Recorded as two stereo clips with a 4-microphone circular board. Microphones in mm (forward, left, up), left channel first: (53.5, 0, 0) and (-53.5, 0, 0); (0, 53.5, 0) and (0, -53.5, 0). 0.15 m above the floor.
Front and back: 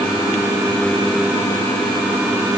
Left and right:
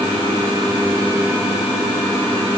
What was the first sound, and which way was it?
Only background noise.